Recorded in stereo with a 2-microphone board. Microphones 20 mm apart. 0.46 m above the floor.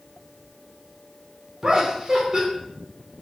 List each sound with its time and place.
1.6 s laughter: 40° right (ahead or behind), 1.1 m